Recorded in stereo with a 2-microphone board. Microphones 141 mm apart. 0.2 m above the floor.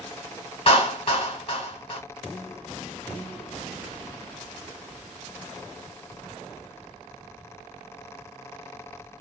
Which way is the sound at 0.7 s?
40° left (ahead or behind).